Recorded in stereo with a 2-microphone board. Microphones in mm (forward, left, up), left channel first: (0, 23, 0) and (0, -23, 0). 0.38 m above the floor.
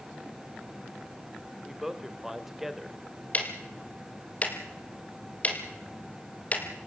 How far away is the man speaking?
About 1.5 m.